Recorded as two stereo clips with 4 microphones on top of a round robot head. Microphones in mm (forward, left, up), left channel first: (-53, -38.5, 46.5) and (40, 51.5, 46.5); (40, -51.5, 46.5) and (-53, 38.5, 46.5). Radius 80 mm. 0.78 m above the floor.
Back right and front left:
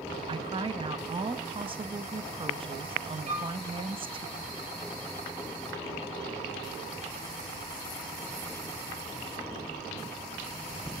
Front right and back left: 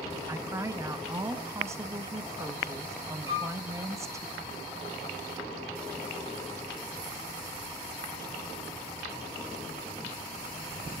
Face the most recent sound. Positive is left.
turn(degrees=70)